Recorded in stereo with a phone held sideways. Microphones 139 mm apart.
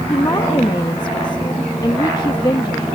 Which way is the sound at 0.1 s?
30° left (ahead or behind).